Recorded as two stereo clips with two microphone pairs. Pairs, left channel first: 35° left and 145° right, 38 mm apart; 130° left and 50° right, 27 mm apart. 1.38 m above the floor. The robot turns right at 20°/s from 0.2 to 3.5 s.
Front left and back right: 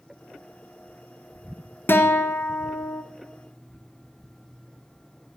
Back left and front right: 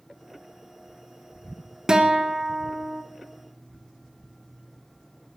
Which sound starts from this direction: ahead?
A guitar, at 1.9 s.